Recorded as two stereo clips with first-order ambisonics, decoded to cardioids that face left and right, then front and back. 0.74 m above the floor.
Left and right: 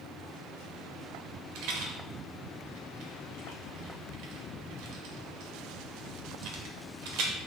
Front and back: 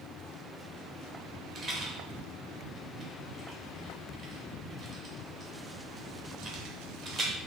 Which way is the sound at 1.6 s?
115° right.